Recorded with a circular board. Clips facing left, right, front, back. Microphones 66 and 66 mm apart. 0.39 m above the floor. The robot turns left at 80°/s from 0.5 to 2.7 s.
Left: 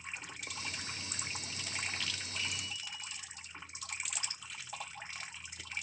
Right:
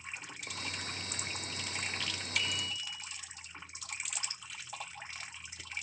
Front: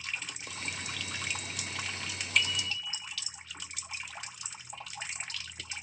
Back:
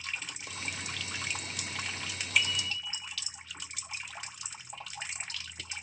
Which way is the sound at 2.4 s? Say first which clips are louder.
Right 7 dB, even; 90° right.